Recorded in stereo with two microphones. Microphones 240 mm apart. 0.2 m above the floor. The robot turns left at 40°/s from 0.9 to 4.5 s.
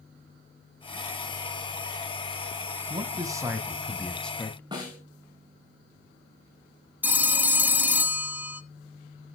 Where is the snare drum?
20° right (ahead or behind), 7.5 m.